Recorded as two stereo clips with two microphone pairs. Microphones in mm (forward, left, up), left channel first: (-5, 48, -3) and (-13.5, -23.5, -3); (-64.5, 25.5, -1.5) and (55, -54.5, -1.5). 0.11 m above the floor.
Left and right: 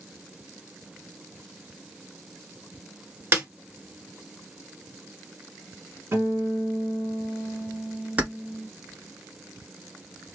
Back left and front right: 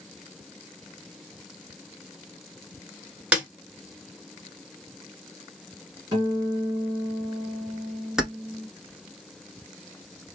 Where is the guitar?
75° right, 1.6 m.